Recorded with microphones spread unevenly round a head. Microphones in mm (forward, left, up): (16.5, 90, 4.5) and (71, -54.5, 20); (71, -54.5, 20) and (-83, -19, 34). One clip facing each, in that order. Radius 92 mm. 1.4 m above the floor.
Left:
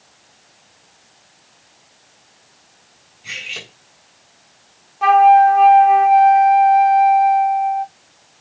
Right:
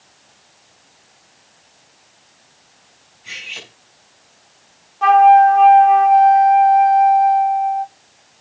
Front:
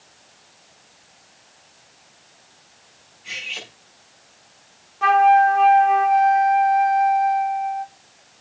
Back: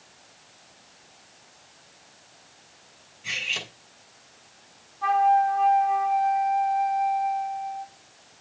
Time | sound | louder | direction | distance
3.2 | cutlery clinking | left 2 dB, back 1 dB | 160° left | 8.5 m
5.0 | a flute | right 1 dB, front 6 dB | 25° left | 0.9 m